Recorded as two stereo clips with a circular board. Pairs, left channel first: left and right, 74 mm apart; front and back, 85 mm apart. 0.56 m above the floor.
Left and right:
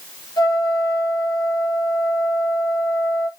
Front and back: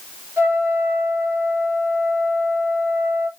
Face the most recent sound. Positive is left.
turn(degrees=115)